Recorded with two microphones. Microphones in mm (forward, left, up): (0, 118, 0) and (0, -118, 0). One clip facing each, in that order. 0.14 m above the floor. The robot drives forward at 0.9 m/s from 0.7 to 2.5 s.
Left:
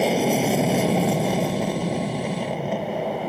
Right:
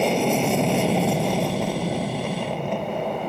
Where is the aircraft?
5° left (ahead or behind).